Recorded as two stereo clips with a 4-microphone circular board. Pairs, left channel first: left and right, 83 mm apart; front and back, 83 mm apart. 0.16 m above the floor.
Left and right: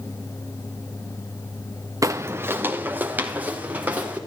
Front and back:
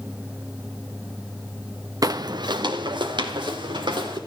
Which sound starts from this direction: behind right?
Footsteps, at 2.0 s.